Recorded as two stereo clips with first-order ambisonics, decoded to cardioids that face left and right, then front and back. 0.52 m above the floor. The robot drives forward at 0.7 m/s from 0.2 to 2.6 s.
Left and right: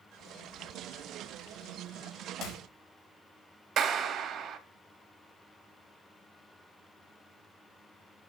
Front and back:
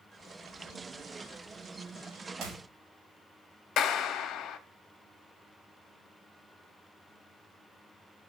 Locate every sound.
2.4 s a clap: 130° left, 1.7 m
3.8 s a clap: 45° right, 0.7 m